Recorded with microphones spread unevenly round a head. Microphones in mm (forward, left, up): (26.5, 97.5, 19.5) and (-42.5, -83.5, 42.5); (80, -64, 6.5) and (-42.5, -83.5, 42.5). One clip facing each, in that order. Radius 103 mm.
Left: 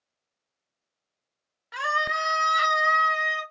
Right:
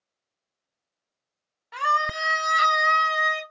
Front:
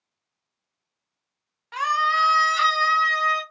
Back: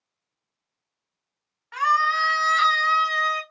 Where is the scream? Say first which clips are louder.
Right 1 dB, back 1 dB; 5° left, 1.1 m; by 3.4 s 75° right, 1.4 m.